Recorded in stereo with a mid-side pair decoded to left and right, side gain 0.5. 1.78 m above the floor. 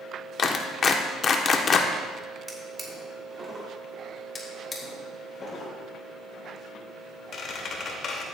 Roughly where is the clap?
Ahead left.